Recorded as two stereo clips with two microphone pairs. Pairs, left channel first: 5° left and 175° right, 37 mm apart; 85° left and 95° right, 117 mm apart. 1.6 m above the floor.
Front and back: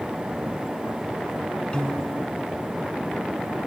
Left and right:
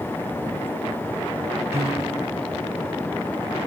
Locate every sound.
1.7 s a piano: 45° right, 1.6 m